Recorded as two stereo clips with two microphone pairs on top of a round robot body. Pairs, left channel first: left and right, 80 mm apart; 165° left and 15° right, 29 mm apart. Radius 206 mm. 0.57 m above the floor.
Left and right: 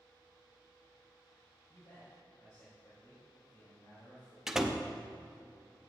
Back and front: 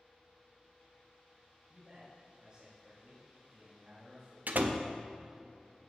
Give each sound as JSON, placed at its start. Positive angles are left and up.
{"t": 1.7, "sound": "a man speaking", "azimuth_deg": 35, "distance_m": 3.5}
{"t": 4.5, "sound": "a door slam", "azimuth_deg": -10, "distance_m": 0.7}